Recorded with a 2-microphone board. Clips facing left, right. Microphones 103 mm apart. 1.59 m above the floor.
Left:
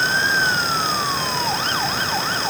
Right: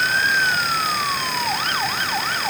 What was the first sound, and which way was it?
Only background noise.